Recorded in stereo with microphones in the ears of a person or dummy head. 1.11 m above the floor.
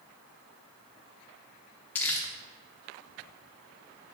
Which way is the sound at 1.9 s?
10° left (ahead or behind).